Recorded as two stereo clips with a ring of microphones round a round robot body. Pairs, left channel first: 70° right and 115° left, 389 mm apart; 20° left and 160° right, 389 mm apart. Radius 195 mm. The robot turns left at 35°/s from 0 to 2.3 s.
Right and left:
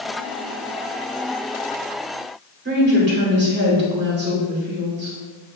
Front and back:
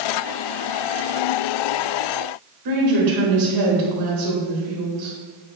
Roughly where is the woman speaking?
Behind.